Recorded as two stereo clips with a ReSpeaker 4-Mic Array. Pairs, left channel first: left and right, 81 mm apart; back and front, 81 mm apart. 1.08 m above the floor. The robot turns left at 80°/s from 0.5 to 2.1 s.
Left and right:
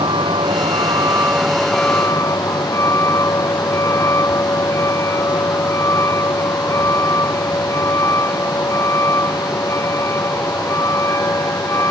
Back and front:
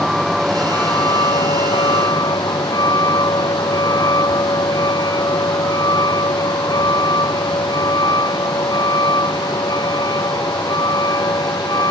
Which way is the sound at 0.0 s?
90° right.